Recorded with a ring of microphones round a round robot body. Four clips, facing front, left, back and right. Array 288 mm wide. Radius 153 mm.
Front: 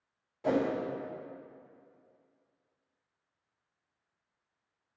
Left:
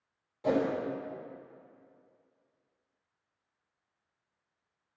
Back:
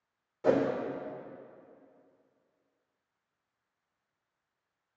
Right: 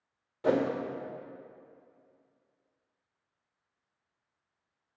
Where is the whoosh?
135° right, 1.4 m.